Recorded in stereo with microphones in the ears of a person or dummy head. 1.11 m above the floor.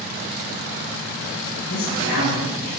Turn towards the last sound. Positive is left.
turn(degrees=85)